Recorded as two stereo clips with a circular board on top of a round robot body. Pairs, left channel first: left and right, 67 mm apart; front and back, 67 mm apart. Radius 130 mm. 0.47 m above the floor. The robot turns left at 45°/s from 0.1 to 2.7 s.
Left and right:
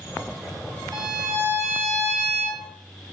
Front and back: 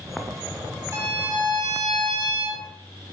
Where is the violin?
130° right, 1.3 m; by 2.6 s 155° left, 1.3 m.